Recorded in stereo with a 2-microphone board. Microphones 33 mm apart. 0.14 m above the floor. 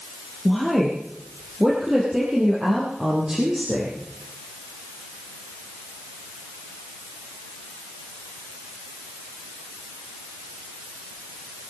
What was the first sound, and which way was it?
A woman speaking, centre (ahead or behind).